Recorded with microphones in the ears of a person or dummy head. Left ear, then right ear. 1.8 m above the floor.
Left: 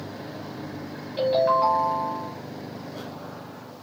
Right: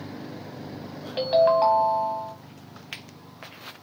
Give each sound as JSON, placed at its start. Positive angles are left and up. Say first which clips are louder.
{"t": 1.2, "sound": "a ringtone", "louder": "right 1 dB", "side_deg": -20, "distance_m": 1.0}